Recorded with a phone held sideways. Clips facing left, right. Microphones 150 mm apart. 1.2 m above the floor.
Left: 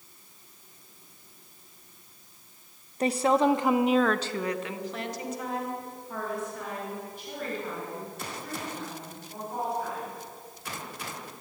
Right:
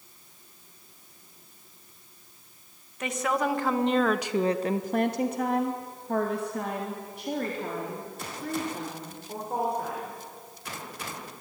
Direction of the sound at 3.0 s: 35° left (ahead or behind).